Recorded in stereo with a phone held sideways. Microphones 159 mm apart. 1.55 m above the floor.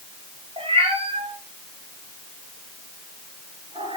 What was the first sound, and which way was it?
A cat meowing, 35° right (ahead or behind).